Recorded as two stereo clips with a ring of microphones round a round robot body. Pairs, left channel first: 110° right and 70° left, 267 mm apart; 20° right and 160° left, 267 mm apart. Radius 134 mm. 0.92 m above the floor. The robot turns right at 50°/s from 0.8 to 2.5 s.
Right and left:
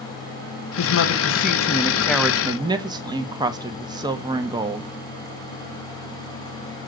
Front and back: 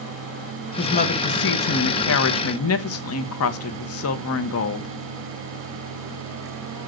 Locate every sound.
0.8 s a woman speaking: 90° right, 1.0 m; by 4.9 s 5° right, 1.0 m